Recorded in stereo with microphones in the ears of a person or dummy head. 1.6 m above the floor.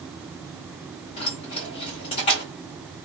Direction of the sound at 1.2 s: 25° left (ahead or behind).